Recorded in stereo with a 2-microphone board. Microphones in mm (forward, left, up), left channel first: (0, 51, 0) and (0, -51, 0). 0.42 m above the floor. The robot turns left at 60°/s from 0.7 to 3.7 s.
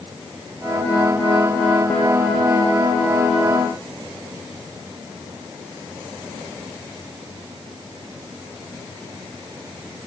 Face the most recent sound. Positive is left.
No sound to turn to.